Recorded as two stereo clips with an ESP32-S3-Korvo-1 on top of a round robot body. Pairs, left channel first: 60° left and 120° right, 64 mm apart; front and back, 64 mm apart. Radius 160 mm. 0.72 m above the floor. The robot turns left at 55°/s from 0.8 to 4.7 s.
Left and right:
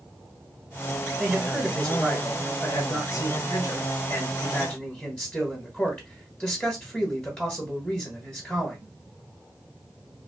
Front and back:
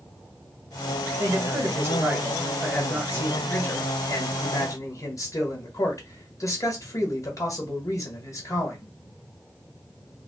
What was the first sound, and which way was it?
A man speaking, 175° right.